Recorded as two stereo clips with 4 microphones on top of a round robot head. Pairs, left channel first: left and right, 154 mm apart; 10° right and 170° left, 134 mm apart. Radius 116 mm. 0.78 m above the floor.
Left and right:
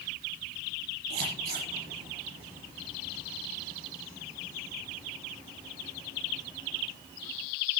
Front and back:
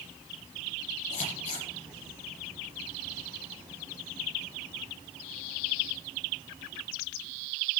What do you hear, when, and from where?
1.1 s scissors: 55° right, 9 m